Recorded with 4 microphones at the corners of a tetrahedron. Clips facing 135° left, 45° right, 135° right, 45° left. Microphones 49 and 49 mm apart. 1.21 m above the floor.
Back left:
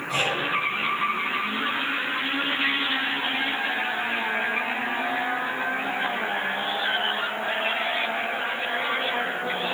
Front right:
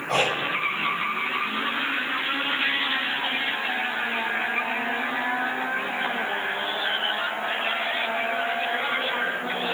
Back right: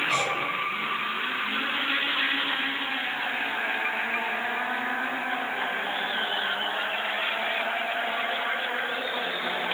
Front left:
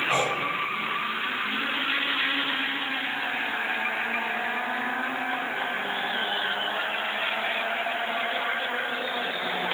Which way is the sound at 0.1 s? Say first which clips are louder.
Front right 2 dB, front left 1 dB; 15° right.